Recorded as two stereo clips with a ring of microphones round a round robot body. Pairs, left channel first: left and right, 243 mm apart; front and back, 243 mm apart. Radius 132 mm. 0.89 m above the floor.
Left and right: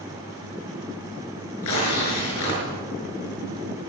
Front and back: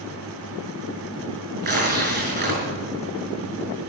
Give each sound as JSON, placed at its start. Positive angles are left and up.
{"t": 1.6, "sound": "tearing paper", "azimuth_deg": 130, "distance_m": 6.0}